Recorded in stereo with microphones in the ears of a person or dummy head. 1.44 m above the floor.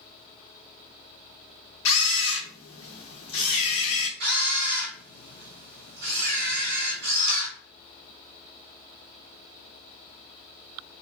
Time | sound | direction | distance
1.9 | a camera shutter | 75° left (ahead or behind) | 0.8 m
4.2 | a camera shutter | 55° right (ahead or behind) | 1.3 m